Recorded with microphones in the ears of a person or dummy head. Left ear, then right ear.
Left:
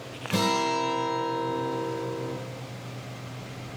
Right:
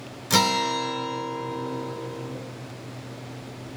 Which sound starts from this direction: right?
A guitar, at 0.3 s.